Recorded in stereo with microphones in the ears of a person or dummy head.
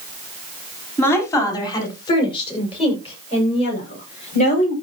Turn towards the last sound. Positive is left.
turn(degrees=40)  # may be behind; listen again after turning